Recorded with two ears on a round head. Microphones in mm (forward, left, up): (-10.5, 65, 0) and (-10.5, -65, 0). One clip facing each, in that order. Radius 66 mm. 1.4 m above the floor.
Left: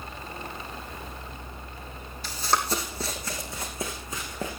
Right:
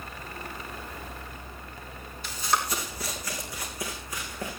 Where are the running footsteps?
30° left (ahead or behind), 2.5 m; by 4.5 s 20° left (ahead or behind), 5 m.